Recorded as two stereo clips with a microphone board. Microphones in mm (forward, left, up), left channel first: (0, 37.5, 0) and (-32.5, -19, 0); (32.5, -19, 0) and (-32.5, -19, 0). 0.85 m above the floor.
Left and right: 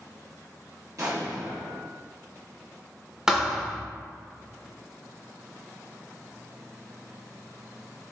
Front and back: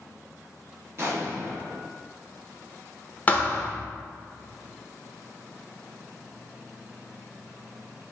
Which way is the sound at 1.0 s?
140° right.